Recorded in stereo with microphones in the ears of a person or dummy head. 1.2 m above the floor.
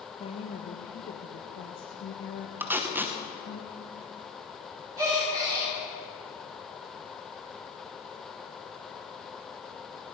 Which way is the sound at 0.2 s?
35° left (ahead or behind).